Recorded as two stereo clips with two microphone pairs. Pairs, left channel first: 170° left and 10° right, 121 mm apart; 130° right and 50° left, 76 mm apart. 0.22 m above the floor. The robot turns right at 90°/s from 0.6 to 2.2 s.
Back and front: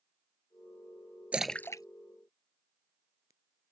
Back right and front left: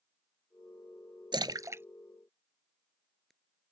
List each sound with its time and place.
1.3 s a splash: 65° left; by 3.3 s 140° left